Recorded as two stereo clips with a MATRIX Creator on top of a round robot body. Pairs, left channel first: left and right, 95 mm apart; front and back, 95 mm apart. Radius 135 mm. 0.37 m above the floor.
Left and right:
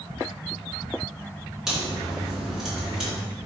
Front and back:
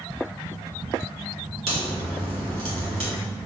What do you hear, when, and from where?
1.7 s a crack: 175° right, 3 m